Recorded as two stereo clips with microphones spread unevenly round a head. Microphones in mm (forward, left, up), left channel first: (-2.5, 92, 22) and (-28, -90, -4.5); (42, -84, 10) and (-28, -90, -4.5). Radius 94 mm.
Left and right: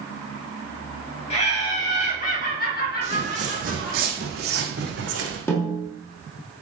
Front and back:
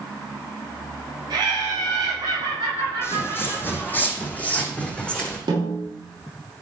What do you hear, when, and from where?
1.3 s laughter: 140° left, 3 m; by 4.0 s 110° left, 2.5 m
3.0 s footsteps: 40° right, 2.5 m; by 5.4 s 65° right, 3 m
5.5 s a snare drum: 160° left, 2.5 m